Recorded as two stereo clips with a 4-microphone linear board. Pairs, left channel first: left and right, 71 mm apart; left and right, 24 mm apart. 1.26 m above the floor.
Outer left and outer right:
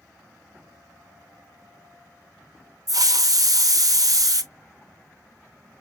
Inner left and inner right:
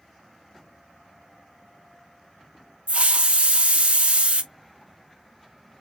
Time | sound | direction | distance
2.9 | a hiss | 60° right (ahead or behind) | 0.7 m